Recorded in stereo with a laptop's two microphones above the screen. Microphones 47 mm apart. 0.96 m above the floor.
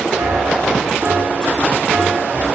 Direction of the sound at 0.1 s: 55° right (ahead or behind).